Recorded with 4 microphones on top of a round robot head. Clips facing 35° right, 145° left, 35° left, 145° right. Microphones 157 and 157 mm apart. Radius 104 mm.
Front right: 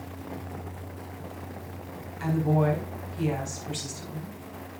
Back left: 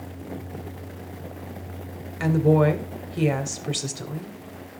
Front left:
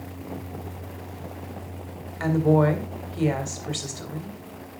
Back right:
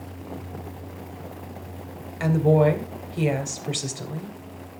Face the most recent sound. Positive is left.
turn(degrees=145)